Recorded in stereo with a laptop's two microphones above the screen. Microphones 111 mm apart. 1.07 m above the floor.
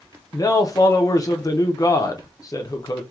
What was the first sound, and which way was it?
A man speaking, 35° left (ahead or behind).